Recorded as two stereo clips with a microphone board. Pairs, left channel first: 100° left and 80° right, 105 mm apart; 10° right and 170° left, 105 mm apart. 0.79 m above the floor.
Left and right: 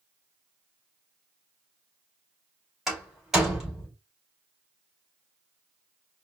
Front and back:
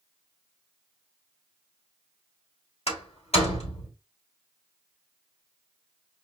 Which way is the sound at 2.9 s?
10° left.